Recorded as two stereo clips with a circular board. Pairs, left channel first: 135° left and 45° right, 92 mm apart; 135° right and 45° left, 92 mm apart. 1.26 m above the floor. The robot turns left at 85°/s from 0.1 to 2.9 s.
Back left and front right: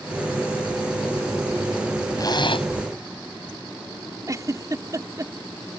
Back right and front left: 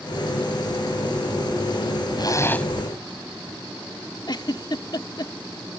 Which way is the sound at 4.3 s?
95° right.